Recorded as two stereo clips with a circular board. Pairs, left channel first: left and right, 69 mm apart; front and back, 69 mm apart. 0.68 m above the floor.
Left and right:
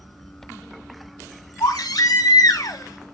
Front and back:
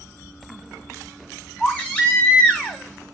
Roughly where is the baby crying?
Left.